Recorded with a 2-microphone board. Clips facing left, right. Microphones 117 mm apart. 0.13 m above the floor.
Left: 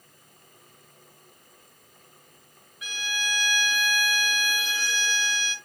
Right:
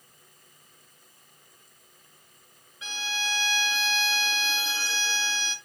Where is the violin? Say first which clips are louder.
Even; 25° right (ahead or behind), 1.1 m.